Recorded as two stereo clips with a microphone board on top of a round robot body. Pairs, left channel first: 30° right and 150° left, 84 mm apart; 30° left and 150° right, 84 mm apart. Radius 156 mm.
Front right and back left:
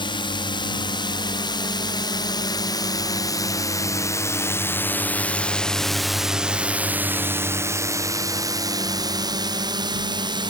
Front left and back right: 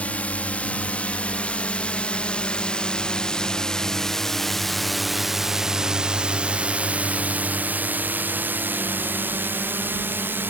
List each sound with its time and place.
0.0 s a drone: 45° right; by 10.5 s 145° left